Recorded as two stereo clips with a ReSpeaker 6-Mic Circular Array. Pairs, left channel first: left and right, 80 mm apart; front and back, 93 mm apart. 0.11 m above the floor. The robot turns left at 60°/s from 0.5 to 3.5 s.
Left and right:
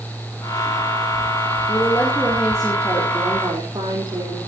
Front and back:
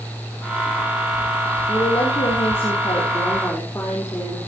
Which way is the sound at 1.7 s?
50° left.